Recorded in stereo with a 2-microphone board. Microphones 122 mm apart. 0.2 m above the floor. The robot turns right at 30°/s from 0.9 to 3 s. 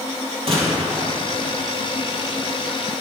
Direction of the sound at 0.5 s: 55° right (ahead or behind).